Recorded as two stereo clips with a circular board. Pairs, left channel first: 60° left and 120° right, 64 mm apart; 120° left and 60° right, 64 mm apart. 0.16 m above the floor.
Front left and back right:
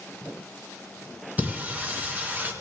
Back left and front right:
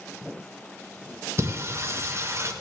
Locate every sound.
1.4 s singing: 65° right, 2 m